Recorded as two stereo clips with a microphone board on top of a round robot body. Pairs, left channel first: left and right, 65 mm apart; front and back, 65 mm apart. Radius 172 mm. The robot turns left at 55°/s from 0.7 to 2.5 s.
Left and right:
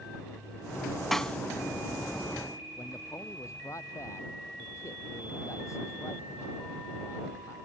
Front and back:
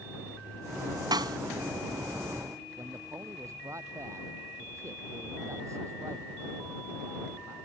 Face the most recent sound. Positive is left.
turn(degrees=135)